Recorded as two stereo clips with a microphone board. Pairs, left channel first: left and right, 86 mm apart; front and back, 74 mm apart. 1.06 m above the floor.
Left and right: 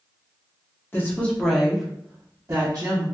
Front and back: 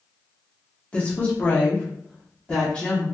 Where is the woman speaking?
55° left, 0.8 m; by 3.1 s 70° right, 1.0 m.